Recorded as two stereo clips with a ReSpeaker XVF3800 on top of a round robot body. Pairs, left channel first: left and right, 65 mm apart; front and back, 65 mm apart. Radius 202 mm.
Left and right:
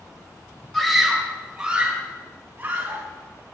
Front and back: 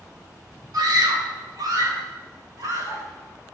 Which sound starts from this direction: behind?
A scream, at 0.7 s.